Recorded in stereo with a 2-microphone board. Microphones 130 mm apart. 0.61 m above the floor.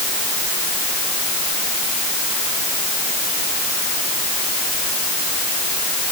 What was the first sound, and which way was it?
Only background noise.